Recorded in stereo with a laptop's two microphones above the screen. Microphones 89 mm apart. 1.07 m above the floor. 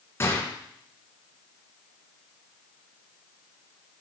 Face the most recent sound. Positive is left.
turn(degrees=30)  # may be behind; listen again after turning